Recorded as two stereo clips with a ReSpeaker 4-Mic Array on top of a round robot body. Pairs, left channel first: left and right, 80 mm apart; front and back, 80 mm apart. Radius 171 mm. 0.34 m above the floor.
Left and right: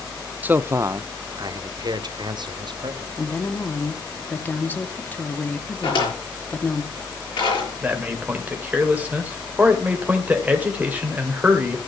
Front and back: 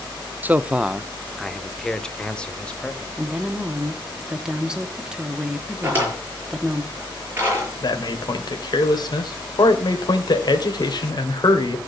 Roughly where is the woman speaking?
Behind left.